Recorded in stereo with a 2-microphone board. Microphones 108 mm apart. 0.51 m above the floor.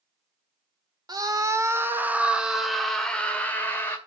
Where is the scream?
40° right (ahead or behind), 1.5 m; by 4.0 s 20° left (ahead or behind), 2.0 m.